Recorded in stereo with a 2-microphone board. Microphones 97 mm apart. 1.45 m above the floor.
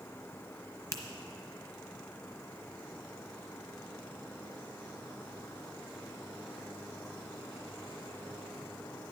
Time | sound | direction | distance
0.9 | a finger snap | 30° left (ahead or behind) | 1.0 m